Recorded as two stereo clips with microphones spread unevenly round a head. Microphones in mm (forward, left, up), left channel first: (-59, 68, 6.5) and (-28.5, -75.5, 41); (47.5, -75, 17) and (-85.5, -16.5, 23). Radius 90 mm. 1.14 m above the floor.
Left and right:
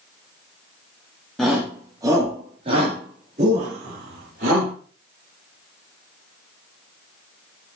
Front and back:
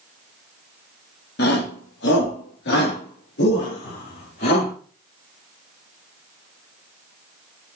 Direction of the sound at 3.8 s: 55° left.